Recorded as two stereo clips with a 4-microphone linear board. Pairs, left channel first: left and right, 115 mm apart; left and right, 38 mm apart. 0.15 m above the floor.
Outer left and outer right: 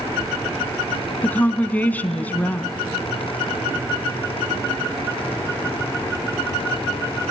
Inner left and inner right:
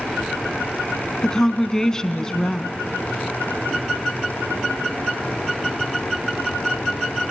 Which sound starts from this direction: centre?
A woman speaking, at 1.2 s.